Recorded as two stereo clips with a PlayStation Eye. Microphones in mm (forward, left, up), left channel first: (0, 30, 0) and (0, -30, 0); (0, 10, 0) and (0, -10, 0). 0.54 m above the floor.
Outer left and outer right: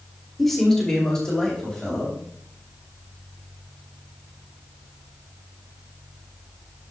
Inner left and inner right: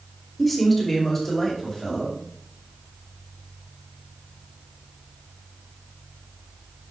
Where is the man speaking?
5° left (ahead or behind), 1.6 m; by 2.1 s 15° left (ahead or behind), 3 m.